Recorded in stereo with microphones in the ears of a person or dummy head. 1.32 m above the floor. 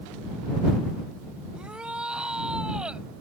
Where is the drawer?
No drawer in this recording.